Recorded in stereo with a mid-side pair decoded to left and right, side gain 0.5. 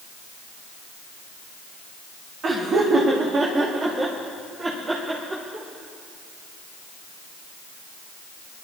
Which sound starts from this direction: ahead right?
Laughter, at 2.4 s.